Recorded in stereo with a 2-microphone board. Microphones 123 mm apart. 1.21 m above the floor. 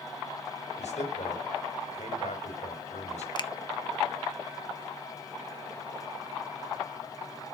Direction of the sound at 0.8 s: 75° left (ahead or behind).